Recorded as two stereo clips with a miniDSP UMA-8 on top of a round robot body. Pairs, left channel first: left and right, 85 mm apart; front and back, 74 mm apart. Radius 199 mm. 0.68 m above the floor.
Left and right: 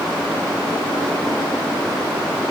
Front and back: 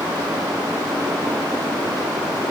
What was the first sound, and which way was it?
Only background noise.